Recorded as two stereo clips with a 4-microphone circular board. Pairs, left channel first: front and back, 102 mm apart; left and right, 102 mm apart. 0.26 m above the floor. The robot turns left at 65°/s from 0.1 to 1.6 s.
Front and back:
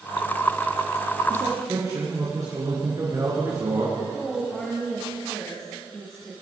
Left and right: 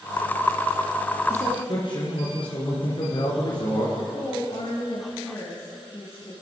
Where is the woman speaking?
75° left, 2.5 m.